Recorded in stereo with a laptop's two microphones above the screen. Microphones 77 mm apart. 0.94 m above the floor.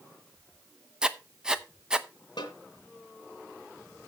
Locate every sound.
1.0 s writing: 10° right (ahead or behind), 0.8 m
2.4 s a snare drum: 80° left, 2.5 m